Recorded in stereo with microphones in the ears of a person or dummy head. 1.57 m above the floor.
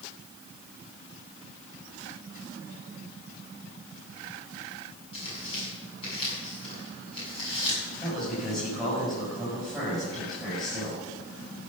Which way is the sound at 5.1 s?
30° left (ahead or behind).